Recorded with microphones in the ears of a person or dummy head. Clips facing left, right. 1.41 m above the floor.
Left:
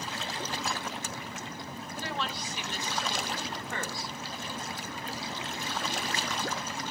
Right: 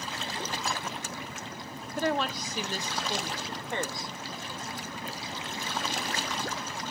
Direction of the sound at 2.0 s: 50° right (ahead or behind).